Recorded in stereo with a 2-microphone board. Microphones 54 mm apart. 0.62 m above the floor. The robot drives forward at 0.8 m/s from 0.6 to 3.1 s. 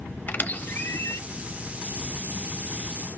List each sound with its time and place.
0.3 s a squeak: 35° left (ahead or behind), 0.8 m; by 1.2 s 60° left (ahead or behind), 0.5 m